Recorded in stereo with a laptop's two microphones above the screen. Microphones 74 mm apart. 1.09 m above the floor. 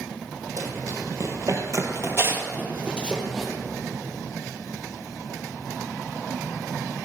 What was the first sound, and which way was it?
Running footsteps, 50° right (ahead or behind).